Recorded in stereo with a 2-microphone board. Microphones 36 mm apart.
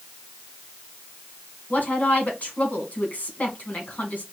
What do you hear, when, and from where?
1.7 s a woman speaking: 55° left (ahead or behind), 1.7 m